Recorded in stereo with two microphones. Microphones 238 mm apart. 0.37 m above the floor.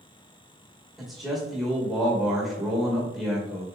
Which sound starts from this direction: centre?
A man speaking, at 1.0 s.